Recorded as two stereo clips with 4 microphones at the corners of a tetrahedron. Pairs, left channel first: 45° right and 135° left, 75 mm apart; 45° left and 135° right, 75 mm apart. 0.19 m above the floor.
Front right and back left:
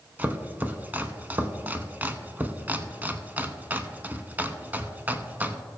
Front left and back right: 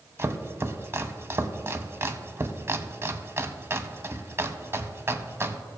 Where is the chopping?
170° right, 0.7 m.